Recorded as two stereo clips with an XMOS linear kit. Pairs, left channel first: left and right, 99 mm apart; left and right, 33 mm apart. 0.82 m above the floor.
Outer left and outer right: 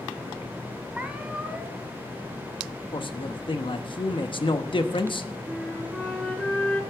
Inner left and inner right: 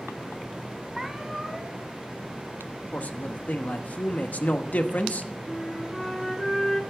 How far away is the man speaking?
About 1.0 m.